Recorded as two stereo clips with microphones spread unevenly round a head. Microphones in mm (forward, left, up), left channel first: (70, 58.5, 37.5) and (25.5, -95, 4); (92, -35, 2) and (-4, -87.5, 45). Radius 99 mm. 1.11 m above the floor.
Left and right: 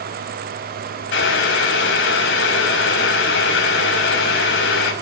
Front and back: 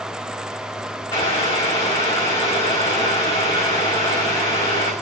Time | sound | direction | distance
1.1 | boiling | 100° left | 6 m